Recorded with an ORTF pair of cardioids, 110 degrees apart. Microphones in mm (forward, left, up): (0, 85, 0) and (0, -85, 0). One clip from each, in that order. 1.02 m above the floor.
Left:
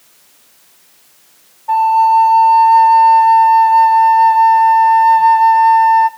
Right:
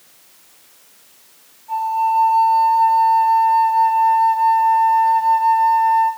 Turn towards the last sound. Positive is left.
turn(degrees=70)